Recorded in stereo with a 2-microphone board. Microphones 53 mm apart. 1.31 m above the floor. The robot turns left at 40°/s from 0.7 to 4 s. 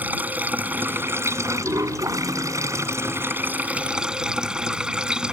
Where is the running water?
35° right; by 5.3 s 165° right.